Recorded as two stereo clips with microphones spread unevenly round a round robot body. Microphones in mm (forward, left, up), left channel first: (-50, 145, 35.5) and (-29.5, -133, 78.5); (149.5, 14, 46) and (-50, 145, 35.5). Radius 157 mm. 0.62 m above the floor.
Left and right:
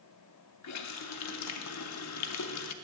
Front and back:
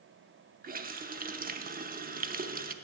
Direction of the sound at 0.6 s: 95° left.